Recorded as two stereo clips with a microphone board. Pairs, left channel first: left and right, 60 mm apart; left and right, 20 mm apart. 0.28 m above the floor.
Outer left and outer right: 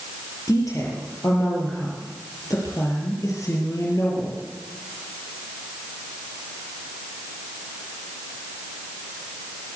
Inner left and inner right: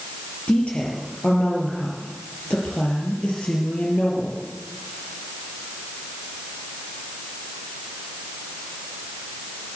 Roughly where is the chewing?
No chewing in this recording.